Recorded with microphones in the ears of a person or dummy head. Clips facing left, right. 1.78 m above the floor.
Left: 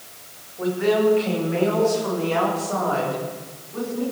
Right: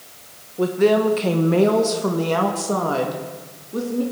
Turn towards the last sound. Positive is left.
turn(degrees=-50)  # may be behind; listen again after turning